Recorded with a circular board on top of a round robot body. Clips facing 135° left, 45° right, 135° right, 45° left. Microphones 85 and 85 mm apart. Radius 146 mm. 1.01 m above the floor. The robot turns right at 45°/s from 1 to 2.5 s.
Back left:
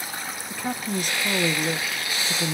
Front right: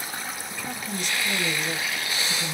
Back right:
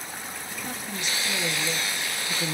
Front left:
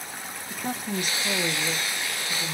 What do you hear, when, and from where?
0.5 s a woman speaking: 90° left, 0.8 m; by 2.5 s 160° left, 0.8 m